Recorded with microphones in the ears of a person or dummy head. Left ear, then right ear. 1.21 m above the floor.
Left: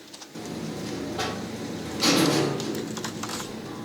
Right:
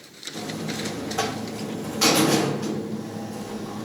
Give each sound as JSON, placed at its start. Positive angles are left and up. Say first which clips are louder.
{"t": 0.3, "sound": "a buzzer", "louder": "right 4 dB", "side_deg": -60, "distance_m": 1.3}